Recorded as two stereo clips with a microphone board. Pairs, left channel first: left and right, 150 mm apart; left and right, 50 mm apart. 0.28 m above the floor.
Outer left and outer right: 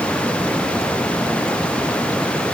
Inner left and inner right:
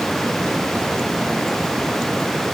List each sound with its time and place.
Only background noise.